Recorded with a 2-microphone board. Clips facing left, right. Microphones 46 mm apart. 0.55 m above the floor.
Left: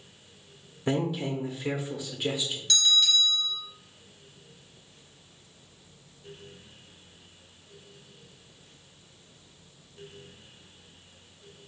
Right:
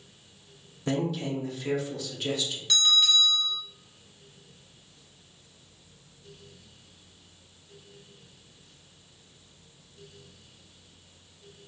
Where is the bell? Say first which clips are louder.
Right 1 dB; 15° right (ahead or behind), 1.6 m.